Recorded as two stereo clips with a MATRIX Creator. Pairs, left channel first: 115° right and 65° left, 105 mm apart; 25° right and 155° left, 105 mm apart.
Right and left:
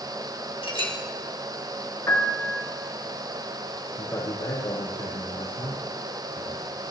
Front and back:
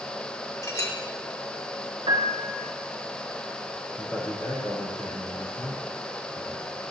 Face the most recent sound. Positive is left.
turn(degrees=-90)